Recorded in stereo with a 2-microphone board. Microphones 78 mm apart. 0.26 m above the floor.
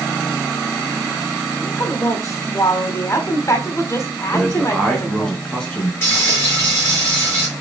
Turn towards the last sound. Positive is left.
turn(degrees=30)  # may be behind; listen again after turning